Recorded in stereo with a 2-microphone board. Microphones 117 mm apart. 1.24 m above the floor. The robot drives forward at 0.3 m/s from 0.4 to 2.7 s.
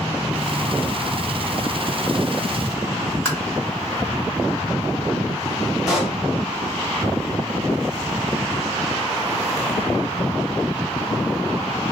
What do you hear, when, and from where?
3.2 s tapping: 20° left (ahead or behind), 2 m
5.9 s a pop: 5° right (ahead or behind), 1.6 m